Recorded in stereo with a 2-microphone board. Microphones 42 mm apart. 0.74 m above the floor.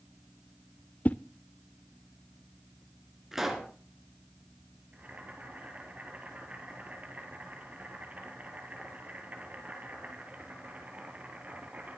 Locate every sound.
1.1 s a whoosh: 40° left (ahead or behind), 0.6 m
3.3 s a pop: 10° right (ahead or behind), 2.5 m
4.9 s boiling: 40° right (ahead or behind), 2.5 m